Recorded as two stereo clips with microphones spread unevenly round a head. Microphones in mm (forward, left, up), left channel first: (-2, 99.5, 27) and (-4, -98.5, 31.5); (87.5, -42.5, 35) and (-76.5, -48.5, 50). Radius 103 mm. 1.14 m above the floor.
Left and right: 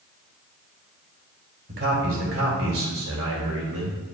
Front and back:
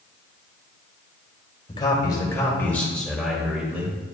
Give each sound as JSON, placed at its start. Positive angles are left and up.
{"t": 1.7, "sound": "a man speaking", "azimuth_deg": -60, "distance_m": 2.5}